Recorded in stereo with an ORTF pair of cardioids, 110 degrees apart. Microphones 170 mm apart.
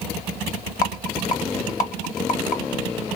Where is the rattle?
55° left, 0.7 m.